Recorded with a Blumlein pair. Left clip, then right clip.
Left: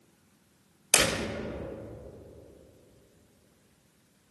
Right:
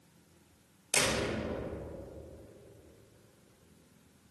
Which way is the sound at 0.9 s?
30° left.